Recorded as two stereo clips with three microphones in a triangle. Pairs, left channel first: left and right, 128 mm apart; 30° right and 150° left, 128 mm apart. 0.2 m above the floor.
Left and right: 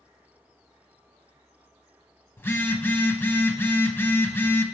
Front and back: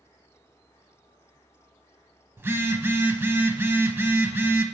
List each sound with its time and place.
2.4 s a phone buzzing: 120° left, 0.7 m